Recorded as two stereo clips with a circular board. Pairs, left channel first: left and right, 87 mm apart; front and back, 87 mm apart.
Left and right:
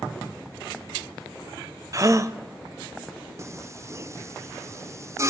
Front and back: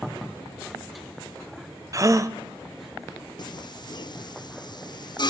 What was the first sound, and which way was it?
A gasp, 135° right.